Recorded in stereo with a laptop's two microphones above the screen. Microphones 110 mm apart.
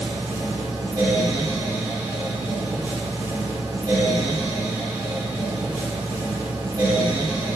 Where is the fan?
35° right (ahead or behind), 2 m.